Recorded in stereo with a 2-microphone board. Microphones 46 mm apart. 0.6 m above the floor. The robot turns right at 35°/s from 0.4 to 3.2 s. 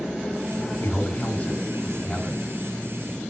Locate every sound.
0.8 s a man speaking: 120° left, 4 m; by 2.5 s straight behind, 4 m